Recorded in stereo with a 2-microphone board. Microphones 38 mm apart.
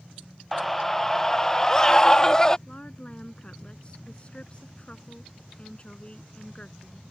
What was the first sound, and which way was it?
A scream, centre (ahead or behind).